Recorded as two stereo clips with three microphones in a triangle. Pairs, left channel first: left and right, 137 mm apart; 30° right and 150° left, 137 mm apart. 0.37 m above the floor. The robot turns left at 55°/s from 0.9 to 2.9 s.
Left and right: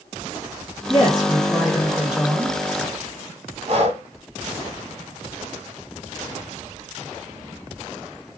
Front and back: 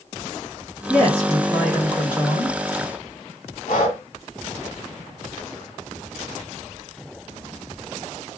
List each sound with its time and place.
0.9 s a woman speaking: 60° left, 1.5 m; by 2.6 s 30° right, 1.5 m
3.7 s breathing: 45° right, 0.8 m